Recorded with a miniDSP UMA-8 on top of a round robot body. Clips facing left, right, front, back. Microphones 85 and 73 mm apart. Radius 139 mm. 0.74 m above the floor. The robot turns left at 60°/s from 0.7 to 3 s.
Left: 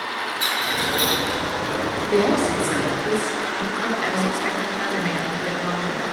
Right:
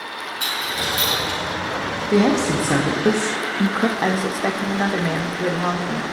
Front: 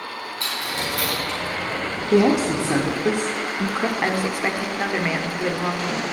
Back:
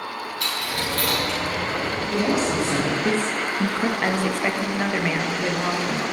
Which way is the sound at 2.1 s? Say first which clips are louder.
Right 2 dB, front 6 dB; 25° right.